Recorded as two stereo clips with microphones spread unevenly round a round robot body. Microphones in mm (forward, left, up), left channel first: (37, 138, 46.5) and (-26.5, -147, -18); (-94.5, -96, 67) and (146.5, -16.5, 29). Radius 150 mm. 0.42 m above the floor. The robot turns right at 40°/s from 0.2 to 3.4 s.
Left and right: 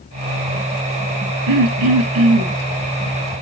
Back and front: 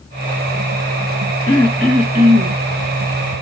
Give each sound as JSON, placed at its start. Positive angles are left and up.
{"t": 1.5, "sound": "throat clearing", "azimuth_deg": -85, "distance_m": 1.6}